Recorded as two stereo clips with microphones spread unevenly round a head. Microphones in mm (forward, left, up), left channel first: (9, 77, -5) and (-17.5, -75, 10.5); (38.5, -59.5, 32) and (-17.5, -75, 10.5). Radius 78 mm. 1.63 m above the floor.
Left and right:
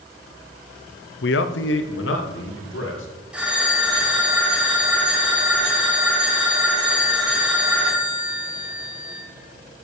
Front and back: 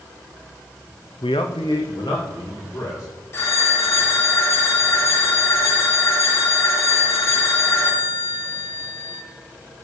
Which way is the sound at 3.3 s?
20° right.